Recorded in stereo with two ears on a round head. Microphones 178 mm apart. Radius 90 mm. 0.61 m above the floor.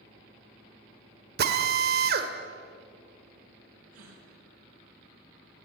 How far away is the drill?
About 1.7 m.